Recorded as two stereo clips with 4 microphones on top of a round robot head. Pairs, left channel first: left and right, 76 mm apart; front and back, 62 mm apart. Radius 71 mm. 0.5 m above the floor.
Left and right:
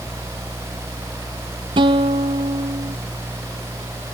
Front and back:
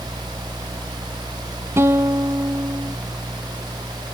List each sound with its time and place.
1.8 s a guitar: 115° right